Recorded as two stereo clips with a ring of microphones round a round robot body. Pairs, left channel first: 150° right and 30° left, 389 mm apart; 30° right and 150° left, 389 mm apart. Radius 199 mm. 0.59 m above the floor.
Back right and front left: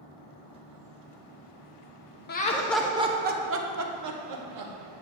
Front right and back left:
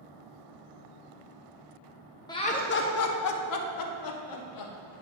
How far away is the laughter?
About 0.6 m.